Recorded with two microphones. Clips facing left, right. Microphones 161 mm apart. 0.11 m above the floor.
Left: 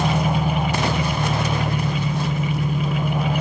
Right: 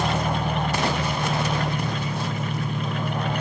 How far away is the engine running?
About 3 m.